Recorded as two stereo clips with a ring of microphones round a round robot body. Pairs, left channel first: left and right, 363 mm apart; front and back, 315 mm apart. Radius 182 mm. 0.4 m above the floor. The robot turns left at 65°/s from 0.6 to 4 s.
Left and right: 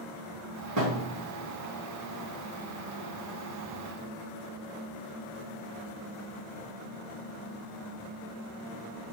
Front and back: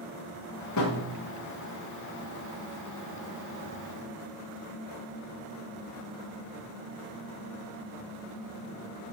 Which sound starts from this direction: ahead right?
A thud, at 0.8 s.